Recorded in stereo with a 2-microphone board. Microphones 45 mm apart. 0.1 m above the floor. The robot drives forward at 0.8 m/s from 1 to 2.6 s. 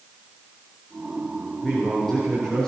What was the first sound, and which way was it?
A man speaking, 15° left (ahead or behind).